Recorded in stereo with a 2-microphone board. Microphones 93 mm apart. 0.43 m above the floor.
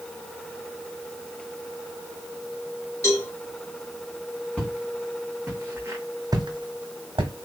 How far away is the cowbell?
About 1.9 m.